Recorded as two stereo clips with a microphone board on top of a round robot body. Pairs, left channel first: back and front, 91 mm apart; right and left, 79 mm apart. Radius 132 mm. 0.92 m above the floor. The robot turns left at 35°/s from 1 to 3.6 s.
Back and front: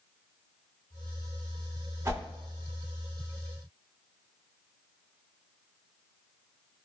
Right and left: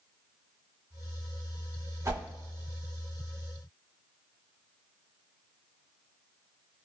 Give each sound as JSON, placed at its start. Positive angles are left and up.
{"t": 2.0, "sound": "a whoosh", "azimuth_deg": 55, "distance_m": 1.3}